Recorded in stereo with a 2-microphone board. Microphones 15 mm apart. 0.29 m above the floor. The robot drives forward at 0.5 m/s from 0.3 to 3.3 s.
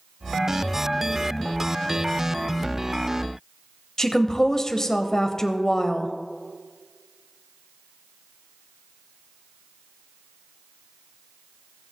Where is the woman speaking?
30° left (ahead or behind), 1.0 m.